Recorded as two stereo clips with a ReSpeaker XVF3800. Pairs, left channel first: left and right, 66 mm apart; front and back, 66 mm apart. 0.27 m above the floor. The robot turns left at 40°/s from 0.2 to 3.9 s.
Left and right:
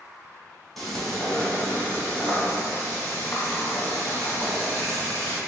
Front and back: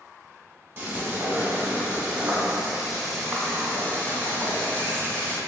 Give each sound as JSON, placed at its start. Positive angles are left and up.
{"t": 0.8, "sound": "frying", "azimuth_deg": 175, "distance_m": 1.2}